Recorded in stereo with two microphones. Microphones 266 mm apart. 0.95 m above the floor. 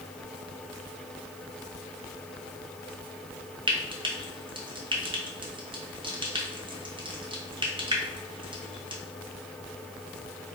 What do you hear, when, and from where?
3.7 s frying: 20° right (ahead or behind), 0.5 m